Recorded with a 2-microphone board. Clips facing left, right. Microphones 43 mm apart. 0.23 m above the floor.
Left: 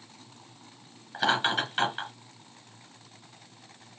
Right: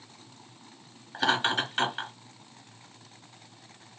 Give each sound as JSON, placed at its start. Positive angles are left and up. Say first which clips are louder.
{"t": 1.1, "sound": "laughter", "louder": "even", "side_deg": 5, "distance_m": 1.1}